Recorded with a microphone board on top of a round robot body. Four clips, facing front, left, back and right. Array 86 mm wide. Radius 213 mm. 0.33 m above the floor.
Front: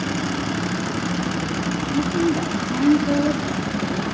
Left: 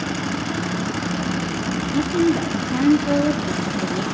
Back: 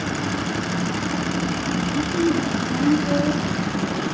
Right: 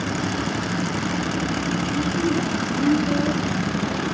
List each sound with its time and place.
1.9 s a woman speaking: 80° left, 1.0 m